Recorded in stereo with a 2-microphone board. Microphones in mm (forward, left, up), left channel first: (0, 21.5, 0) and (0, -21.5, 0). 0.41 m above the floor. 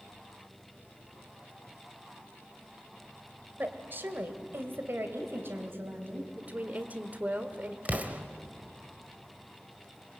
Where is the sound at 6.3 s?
40° right (ahead or behind), 1.5 m.